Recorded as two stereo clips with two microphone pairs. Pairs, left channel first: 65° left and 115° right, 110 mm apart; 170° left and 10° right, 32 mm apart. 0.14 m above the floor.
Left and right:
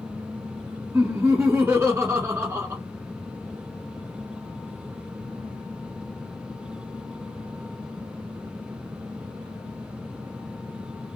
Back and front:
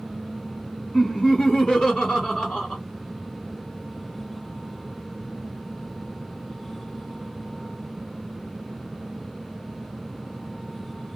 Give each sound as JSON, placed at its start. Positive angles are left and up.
{"t": 0.9, "sound": "laughter", "azimuth_deg": -155, "distance_m": 1.6}